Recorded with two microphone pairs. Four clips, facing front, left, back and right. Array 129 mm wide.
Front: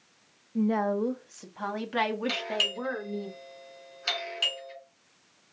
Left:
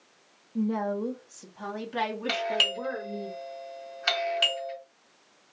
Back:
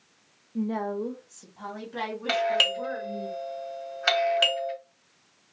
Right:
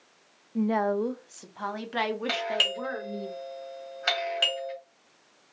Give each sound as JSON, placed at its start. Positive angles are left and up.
{"t": 0.6, "sound": "a woman speaking", "azimuth_deg": -75, "distance_m": 0.6}
{"t": 2.3, "sound": "a doorbell", "azimuth_deg": -175, "distance_m": 1.5}